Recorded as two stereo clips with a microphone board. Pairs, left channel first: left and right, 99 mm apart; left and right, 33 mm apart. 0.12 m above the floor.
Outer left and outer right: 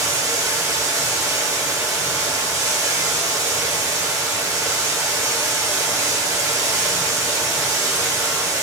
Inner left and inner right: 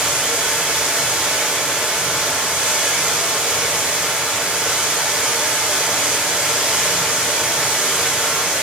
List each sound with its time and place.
0.0 s running water: 30° right (ahead or behind), 1.3 m